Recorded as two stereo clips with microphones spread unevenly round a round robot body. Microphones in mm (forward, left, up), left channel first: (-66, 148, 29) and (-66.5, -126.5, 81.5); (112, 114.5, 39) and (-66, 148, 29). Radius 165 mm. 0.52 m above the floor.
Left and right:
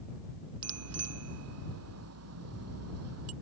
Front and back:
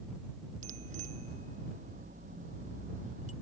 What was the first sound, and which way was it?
A bicycle bell, 125° right.